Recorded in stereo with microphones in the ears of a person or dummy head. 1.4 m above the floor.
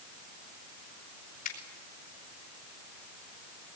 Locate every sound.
1.4 s a finger snap: 45° left (ahead or behind), 4.5 m